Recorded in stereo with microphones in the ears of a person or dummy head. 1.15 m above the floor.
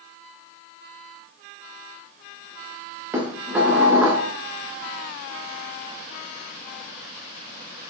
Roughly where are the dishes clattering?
Centre.